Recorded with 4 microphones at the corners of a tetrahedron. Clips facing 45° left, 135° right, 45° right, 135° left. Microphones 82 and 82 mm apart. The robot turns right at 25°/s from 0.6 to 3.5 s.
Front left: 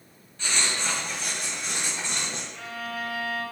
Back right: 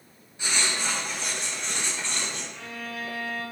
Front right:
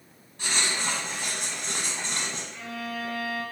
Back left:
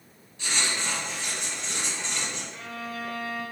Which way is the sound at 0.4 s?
60° right.